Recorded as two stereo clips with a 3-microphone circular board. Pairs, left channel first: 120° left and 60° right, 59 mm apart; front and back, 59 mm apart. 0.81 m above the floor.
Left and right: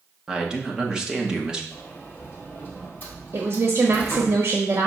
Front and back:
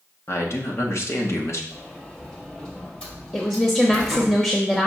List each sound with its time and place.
0.3 s a man speaking: 15° left, 1.2 m
1.7 s a sliding door: 70° left, 2.0 m
3.3 s a woman speaking: 65° right, 1.1 m